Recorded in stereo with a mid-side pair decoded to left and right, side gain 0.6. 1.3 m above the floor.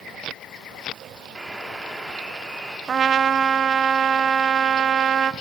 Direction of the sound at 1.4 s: 15° right.